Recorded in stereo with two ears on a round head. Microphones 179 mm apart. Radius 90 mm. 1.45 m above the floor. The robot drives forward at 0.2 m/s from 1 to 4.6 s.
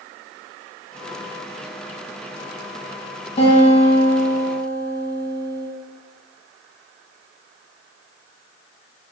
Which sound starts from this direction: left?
A guitar, at 3.4 s.